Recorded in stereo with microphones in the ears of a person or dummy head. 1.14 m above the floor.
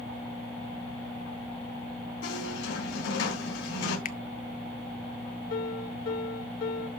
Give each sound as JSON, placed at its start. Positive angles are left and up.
{"t": 2.2, "sound": "a squeak", "side_deg": 75, "distance_m": 4.0}
{"t": 4.0, "sound": "a finger snap", "side_deg": 45, "distance_m": 0.5}
{"t": 5.5, "sound": "a piano", "side_deg": 70, "distance_m": 4.5}